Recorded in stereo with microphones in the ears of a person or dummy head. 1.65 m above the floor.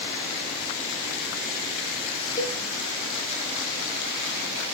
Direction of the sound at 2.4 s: 20° left (ahead or behind).